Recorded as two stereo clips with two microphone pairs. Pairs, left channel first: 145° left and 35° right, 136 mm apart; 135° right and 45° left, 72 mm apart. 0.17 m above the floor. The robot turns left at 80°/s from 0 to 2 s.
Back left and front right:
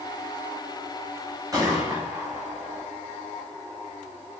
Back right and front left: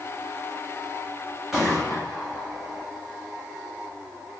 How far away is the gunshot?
About 1.5 m.